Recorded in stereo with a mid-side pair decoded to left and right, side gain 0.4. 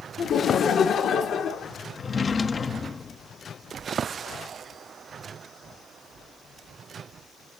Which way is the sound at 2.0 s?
40° left.